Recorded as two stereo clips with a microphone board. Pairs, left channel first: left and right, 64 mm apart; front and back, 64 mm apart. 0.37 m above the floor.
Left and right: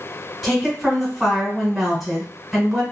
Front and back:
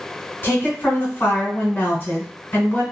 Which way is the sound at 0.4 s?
5° right.